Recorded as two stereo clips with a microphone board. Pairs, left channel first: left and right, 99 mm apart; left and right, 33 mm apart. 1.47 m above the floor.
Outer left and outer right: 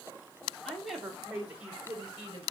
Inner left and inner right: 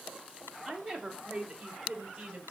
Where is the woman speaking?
5° left (ahead or behind), 3.5 m; by 2.5 s 30° right (ahead or behind), 4 m.